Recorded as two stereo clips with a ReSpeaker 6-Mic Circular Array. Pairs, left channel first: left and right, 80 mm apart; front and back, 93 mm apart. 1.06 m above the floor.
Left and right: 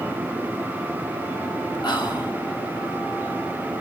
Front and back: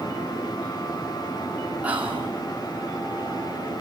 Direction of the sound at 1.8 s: 105° left.